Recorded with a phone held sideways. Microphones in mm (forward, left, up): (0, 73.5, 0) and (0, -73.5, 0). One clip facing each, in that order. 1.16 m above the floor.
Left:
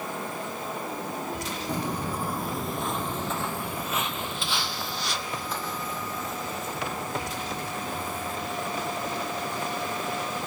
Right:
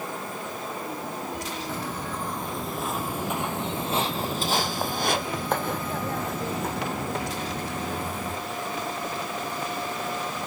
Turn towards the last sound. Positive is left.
turn(degrees=-60)  # may be behind; listen again after turning